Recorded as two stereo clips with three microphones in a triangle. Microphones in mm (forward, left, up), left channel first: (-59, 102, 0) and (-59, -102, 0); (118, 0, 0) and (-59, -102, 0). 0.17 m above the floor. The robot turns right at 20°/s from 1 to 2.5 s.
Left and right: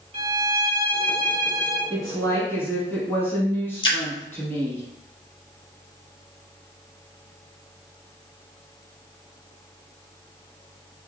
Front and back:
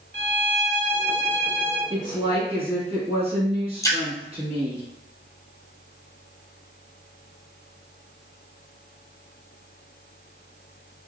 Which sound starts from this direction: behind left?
A woman speaking, at 1.9 s.